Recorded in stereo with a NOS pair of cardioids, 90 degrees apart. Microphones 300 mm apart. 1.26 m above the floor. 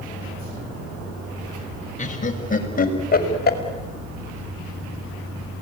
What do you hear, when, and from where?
2.0 s laughter: 25° left, 6.5 m; by 3.6 s 30° left, 6 m